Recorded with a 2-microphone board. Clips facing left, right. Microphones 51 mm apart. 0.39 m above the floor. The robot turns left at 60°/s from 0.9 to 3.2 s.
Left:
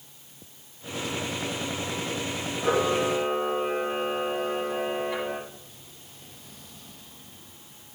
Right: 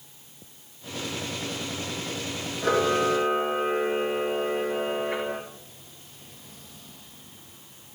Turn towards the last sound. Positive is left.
turn(degrees=-65)